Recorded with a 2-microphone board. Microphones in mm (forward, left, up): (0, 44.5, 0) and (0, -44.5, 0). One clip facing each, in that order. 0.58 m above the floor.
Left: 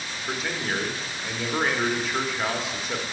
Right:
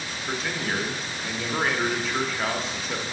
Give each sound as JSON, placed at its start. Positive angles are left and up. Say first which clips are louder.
{"t": 0.3, "sound": "a man speaking", "louder": "even", "side_deg": 5, "distance_m": 1.0}